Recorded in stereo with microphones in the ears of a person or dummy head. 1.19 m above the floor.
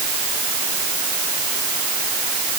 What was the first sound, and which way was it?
Only background noise.